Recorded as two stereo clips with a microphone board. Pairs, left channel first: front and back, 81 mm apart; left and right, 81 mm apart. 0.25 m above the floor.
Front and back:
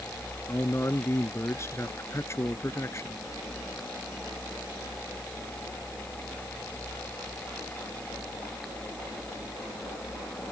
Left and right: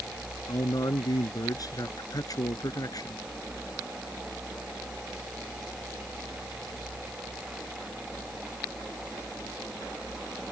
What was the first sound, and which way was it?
A man speaking, 55° left.